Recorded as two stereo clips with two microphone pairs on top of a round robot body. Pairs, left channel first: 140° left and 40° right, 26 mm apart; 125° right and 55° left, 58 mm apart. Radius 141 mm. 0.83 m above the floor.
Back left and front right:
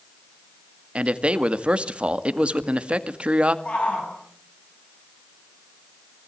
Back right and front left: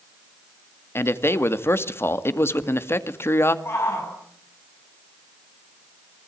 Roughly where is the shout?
Behind.